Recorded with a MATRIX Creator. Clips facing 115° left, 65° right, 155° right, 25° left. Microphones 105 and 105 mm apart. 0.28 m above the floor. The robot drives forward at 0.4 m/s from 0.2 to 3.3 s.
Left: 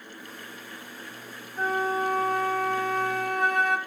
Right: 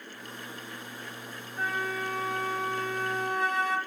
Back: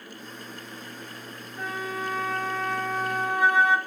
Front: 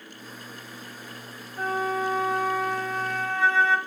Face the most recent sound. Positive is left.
turn(degrees=130)